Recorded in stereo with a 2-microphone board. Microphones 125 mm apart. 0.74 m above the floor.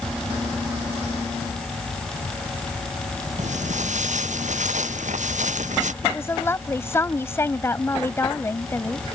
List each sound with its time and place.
3.4 s footsteps: 80° right; by 5.9 s 85° right
6.0 s a woman speaking: 20° left (ahead or behind)